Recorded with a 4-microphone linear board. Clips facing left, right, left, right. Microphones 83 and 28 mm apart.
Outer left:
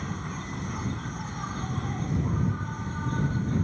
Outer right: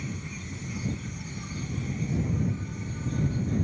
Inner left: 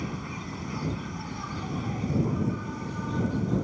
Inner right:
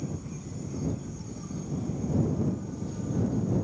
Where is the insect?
50° left (ahead or behind).